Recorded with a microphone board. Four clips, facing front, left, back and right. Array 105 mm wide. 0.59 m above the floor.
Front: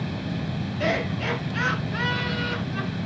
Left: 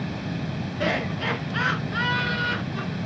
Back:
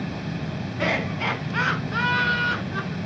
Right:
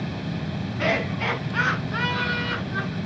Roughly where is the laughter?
Behind right.